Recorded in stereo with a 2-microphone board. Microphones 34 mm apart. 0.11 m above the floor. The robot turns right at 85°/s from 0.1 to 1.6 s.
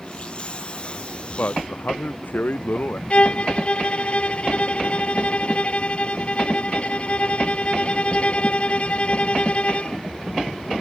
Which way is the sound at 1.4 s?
80° left.